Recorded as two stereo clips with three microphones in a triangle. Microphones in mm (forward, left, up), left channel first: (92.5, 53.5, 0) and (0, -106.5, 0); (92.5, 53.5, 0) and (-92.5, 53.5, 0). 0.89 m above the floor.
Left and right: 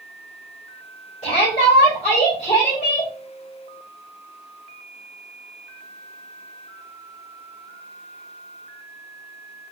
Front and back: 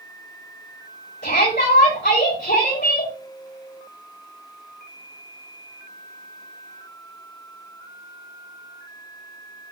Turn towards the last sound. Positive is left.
turn(degrees=10)